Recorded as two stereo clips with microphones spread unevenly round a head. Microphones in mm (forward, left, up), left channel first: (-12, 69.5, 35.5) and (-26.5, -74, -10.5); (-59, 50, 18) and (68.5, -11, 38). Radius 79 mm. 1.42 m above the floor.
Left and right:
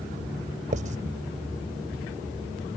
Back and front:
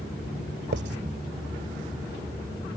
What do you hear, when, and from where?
0.7 s writing: 45° right